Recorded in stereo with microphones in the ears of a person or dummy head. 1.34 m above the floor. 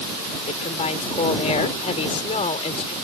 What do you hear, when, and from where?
0.5 s a woman speaking: 35° left (ahead or behind)